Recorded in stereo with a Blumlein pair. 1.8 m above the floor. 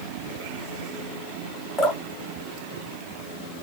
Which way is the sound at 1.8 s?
10° left.